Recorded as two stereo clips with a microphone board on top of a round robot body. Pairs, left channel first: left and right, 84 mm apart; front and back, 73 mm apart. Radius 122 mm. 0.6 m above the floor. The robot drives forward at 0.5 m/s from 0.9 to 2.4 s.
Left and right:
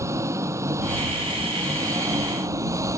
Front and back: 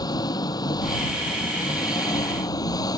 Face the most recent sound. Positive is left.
turn(degrees=-35)